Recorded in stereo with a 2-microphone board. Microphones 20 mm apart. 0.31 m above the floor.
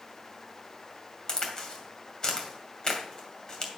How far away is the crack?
About 2 m.